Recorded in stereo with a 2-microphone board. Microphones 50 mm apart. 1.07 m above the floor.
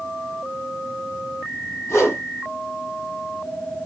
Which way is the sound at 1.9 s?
75° left (ahead or behind).